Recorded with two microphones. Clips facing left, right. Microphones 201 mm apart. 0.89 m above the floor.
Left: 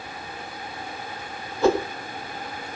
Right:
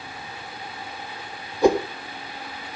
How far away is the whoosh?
About 1.4 m.